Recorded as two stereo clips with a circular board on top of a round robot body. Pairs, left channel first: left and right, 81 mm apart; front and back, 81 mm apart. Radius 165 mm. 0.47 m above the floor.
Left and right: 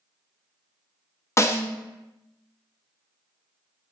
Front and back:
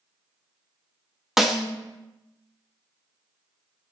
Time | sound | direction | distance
1.4 | a snare drum | 95° left | 0.7 m